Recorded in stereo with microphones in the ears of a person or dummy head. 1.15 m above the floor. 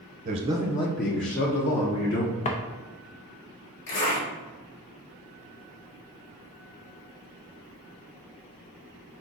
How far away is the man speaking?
About 0.9 m.